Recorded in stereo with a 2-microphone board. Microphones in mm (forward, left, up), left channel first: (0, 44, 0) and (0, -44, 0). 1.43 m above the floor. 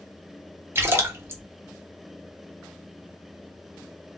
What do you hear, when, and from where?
0.8 s a splash: 30° right (ahead or behind), 0.7 m